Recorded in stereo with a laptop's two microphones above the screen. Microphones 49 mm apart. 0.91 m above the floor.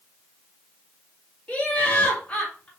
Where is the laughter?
30° left (ahead or behind), 1.8 m.